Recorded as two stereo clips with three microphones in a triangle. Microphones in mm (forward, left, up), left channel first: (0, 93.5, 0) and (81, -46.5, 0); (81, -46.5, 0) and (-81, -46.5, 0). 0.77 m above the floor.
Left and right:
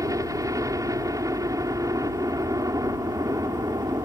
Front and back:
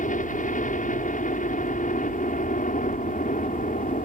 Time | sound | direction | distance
0.0 | a helicopter | 5° left | ?